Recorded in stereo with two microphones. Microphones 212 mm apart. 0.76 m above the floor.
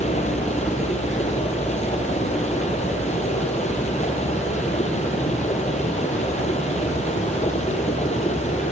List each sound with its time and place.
0.0 s running water: 30° left (ahead or behind), 4 m